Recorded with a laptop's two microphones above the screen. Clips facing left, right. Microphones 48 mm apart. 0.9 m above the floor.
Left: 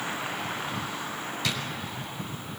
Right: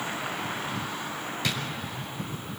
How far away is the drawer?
About 5 m.